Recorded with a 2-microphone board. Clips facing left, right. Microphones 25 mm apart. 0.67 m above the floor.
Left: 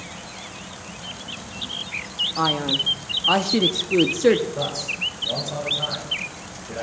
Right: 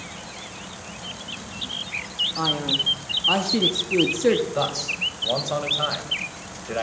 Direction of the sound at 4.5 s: 45° right (ahead or behind).